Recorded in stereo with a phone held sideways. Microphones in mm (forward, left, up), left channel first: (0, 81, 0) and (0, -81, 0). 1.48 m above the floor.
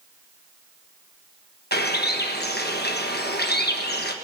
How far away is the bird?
About 1.4 m.